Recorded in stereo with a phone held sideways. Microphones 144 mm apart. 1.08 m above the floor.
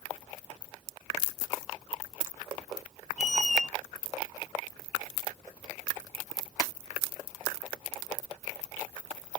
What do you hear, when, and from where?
3.2 s a squeak: 55° left (ahead or behind), 0.6 m